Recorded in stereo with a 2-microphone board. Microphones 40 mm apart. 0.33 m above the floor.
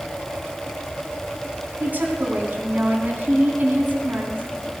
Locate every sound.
1.8 s a woman speaking: 50° right (ahead or behind), 3.5 m